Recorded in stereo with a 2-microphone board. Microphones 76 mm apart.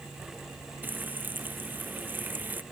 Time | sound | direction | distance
0.8 | frying | 25° right (ahead or behind) | ?